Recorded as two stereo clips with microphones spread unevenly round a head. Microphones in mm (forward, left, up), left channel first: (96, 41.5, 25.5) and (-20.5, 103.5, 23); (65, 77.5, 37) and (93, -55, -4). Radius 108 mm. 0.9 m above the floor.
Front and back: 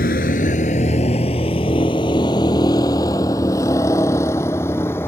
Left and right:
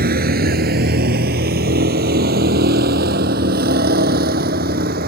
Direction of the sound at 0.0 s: 75° right.